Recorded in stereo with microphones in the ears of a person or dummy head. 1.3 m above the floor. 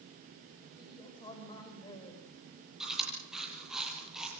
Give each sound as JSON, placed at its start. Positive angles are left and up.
{"t": 0.8, "sound": "a woman speaking", "side_deg": 25, "distance_m": 6.0}
{"t": 2.8, "sound": "chewing", "side_deg": -5, "distance_m": 8.0}